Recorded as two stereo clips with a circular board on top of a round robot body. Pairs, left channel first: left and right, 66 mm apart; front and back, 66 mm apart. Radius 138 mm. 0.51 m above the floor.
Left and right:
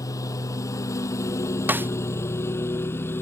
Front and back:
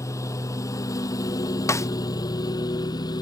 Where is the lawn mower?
45° left; by 3.2 s 30° left.